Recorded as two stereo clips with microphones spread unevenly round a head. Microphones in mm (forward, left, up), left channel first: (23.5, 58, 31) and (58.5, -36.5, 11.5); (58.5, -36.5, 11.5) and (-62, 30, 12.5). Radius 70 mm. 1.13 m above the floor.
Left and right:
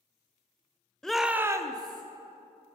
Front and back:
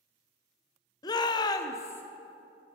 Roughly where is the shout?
Ahead.